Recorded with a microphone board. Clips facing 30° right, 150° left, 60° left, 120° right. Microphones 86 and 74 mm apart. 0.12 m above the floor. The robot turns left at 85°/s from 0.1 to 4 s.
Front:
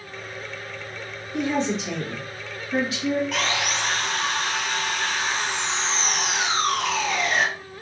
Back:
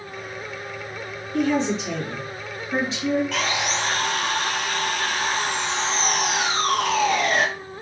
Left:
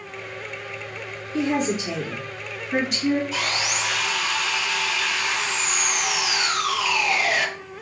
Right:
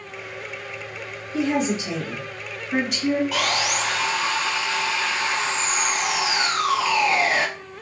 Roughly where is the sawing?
Behind right.